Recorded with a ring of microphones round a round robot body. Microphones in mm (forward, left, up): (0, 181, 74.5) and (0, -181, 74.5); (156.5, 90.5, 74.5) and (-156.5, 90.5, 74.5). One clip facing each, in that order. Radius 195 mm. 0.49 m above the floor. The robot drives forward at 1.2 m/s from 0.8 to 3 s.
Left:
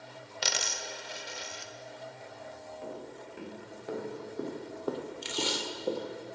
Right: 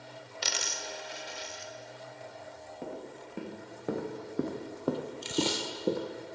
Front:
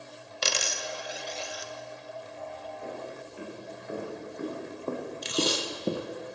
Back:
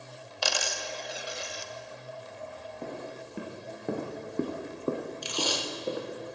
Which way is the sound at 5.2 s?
65° left.